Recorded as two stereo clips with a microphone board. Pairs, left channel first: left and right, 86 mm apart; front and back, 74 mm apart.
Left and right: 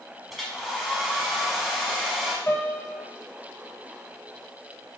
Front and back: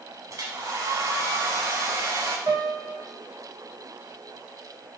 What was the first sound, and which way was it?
A hair dryer, 175° right.